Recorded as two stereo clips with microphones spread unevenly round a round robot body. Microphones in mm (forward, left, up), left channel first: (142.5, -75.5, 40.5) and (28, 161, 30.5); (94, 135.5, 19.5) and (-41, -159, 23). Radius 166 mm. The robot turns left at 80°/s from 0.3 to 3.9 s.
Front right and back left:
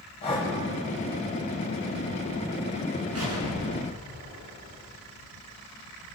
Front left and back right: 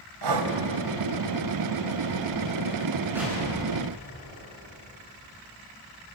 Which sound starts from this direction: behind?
An explosion, at 3.1 s.